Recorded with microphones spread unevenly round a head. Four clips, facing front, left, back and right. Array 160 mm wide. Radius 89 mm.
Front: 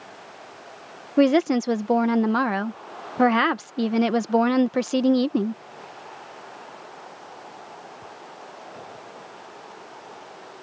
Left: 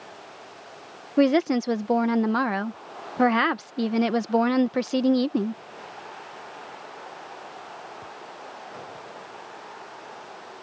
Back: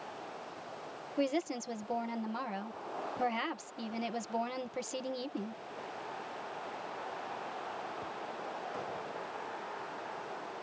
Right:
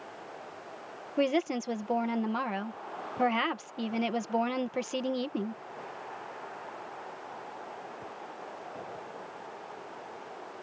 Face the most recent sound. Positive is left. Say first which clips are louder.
# left 8 dB, front 15 dB
turn(degrees=35)